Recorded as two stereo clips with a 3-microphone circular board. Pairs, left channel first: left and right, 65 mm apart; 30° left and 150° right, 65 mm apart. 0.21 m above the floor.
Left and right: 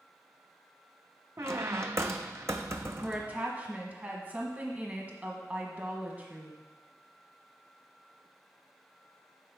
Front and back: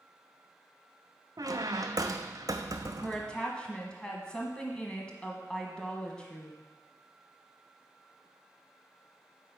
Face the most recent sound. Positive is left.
turn(degrees=-35)